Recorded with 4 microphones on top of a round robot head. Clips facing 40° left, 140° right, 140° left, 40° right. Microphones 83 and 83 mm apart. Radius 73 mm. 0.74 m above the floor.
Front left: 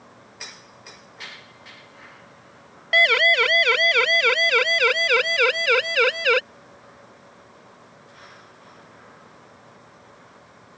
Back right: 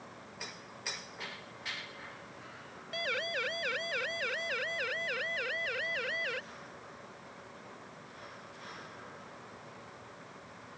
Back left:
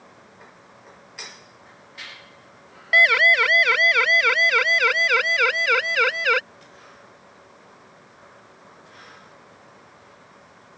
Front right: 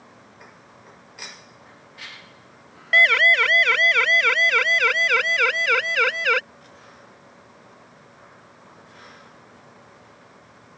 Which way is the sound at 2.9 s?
55° left.